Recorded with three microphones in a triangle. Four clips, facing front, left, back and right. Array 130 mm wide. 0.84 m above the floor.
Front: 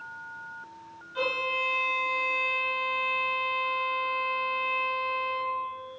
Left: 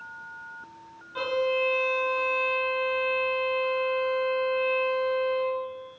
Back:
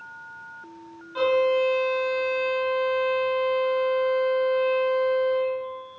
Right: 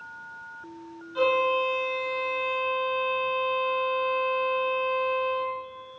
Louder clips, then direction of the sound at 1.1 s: Right 3 dB, back 10 dB; 150° left.